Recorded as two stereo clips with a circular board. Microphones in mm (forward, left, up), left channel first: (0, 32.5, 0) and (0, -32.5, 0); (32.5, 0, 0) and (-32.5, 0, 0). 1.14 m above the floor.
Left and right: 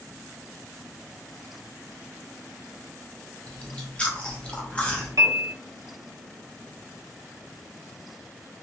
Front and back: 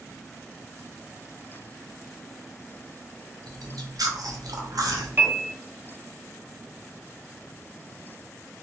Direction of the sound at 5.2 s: 125° right.